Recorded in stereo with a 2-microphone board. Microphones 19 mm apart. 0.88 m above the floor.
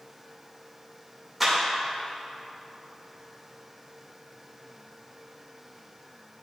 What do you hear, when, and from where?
1.4 s a clap: 5° right (ahead or behind), 2.5 m